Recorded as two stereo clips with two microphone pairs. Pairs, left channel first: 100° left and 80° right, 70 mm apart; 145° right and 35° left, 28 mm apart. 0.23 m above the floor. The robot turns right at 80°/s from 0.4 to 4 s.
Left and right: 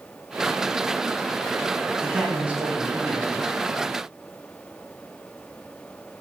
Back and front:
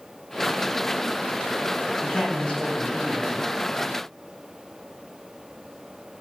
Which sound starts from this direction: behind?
A man speaking, at 2.0 s.